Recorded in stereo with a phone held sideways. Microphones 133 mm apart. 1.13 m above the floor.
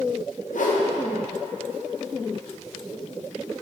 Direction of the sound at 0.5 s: 70° left (ahead or behind).